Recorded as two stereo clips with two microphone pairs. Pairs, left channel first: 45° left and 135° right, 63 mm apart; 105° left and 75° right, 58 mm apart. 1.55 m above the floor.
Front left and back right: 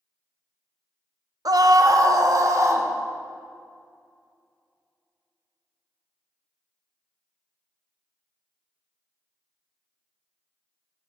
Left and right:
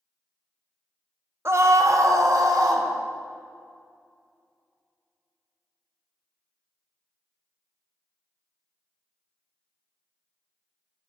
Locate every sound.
1.4 s a scream: 125° right, 0.6 m; by 2.9 s 95° right, 1.4 m